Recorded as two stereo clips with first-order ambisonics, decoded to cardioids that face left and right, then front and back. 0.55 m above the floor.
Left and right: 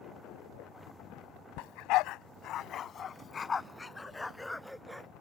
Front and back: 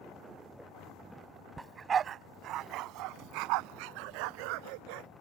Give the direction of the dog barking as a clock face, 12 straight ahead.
9 o'clock.